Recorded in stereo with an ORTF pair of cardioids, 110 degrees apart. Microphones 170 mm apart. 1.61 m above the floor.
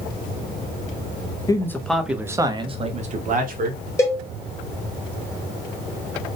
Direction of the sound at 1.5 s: 20° left.